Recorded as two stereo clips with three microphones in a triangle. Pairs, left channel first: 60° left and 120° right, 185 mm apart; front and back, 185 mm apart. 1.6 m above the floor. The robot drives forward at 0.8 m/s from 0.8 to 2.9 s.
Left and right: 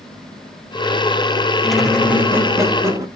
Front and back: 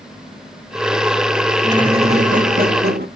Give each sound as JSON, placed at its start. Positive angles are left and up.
{"t": 1.6, "sound": "a squeak", "azimuth_deg": 140, "distance_m": 1.0}